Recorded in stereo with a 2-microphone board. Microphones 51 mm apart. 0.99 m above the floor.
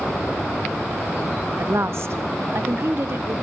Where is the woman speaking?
60° right (ahead or behind), 1.2 m; by 3.4 s 55° right (ahead or behind), 2.5 m.